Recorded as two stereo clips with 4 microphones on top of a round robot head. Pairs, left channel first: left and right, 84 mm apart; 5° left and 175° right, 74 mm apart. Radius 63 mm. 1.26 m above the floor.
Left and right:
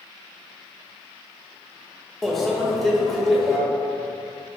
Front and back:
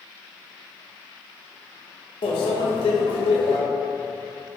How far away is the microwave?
About 0.7 m.